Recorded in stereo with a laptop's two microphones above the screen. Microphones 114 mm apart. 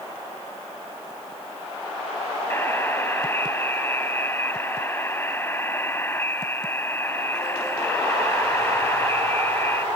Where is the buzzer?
20° left (ahead or behind).